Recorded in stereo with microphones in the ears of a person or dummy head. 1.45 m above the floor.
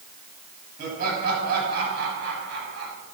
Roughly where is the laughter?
Right.